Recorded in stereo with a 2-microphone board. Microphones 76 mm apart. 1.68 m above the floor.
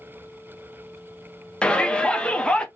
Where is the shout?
10° left (ahead or behind), 0.7 m.